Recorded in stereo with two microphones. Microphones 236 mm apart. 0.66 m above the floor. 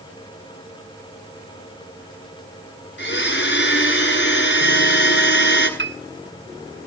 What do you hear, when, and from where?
3.0 s a blender: 50° left (ahead or behind), 9 m
5.8 s a piano: 50° right (ahead or behind), 1.4 m